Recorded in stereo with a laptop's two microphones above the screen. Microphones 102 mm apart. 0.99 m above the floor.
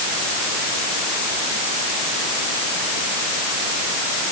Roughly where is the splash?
No splash in this recording.